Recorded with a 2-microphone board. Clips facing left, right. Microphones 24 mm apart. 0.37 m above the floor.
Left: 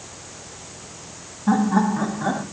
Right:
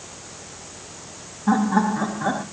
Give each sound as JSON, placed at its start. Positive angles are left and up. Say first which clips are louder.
{"t": 1.5, "sound": "laughter", "louder": "even", "side_deg": -10, "distance_m": 1.3}